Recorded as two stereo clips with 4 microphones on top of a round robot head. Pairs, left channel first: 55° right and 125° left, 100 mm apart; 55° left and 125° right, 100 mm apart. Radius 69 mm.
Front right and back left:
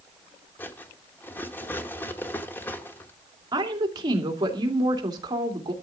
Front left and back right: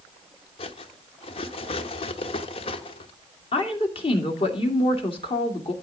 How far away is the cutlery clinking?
About 1.0 m.